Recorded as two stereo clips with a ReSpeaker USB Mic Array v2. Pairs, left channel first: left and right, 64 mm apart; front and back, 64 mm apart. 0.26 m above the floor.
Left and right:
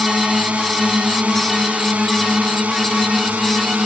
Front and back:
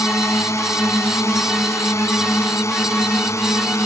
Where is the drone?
20° right; by 3.9 s 25° right.